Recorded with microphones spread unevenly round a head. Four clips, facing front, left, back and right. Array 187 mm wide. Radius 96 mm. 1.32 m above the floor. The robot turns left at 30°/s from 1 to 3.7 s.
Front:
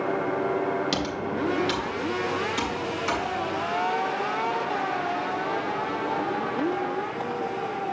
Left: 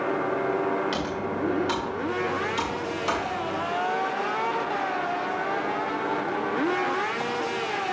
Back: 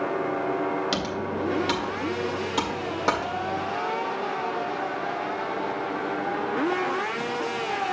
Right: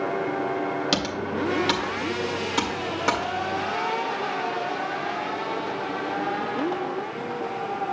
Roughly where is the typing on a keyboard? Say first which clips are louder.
Right 1 dB, even; right.